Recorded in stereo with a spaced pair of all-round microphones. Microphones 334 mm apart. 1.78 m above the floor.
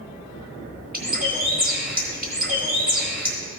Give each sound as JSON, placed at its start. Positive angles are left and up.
{"t": 0.9, "sound": "a bird", "side_deg": -25, "distance_m": 1.6}